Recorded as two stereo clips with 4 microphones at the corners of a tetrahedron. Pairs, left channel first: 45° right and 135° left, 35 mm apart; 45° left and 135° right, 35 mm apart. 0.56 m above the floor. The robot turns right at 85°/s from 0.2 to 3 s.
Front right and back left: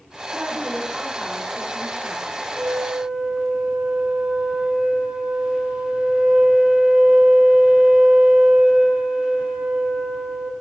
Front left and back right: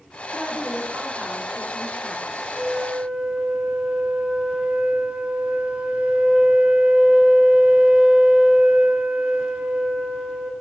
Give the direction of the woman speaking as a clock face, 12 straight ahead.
7 o'clock.